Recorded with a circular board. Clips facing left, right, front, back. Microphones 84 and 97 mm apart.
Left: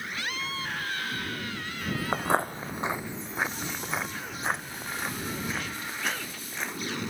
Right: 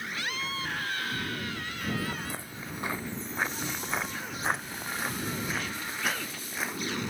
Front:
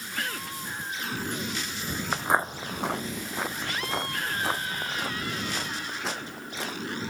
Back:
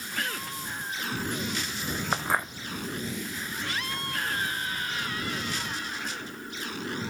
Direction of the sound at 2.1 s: 100° left.